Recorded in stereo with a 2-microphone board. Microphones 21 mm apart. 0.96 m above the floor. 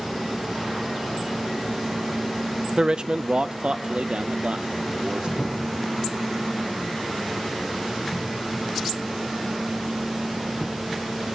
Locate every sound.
2.8 s a man speaking: 40° right (ahead or behind), 0.7 m; by 5.3 s 65° right (ahead or behind), 2 m
5.4 s a cupboard door: 15° left (ahead or behind), 9 m